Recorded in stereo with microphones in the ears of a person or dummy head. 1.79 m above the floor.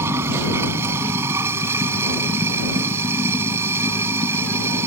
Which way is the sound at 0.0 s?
15° right (ahead or behind).